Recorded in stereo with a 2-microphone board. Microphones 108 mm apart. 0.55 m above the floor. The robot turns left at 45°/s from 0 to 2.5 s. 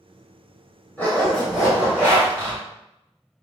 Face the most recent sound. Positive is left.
turn(degrees=-45)